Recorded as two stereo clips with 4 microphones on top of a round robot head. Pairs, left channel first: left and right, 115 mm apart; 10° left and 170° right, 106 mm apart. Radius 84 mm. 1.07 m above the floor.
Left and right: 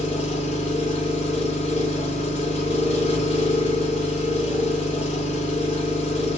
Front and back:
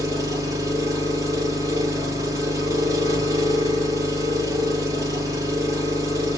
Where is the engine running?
135° left, 3.5 m.